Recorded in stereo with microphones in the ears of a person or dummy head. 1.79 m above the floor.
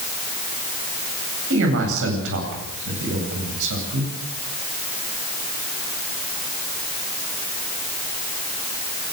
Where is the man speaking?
65° right (ahead or behind), 8.5 m.